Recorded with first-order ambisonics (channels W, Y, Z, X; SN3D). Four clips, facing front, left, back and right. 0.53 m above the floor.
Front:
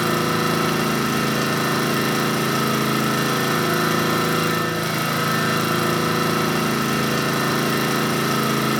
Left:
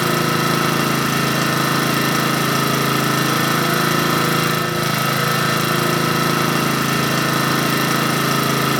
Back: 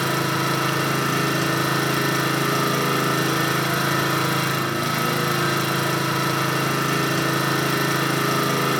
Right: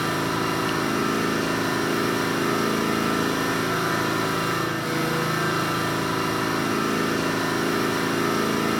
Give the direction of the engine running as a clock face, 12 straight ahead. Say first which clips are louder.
Left 6 dB, front 2 dB; 9 o'clock.